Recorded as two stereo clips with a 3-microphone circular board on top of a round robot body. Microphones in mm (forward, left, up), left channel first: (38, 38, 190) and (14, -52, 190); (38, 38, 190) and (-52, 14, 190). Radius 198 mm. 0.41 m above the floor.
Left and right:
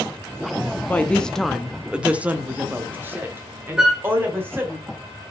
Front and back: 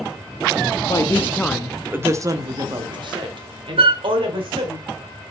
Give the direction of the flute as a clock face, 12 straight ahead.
6 o'clock.